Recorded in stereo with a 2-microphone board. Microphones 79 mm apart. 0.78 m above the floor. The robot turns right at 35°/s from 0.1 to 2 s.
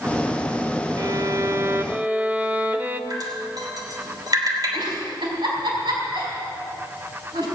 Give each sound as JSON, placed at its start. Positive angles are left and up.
{"t": 1.0, "sound": "a violin", "azimuth_deg": -55, "distance_m": 0.8}
{"t": 3.1, "sound": "dripping", "side_deg": -55, "distance_m": 3.0}
{"t": 4.7, "sound": "a giggle", "side_deg": -70, "distance_m": 4.5}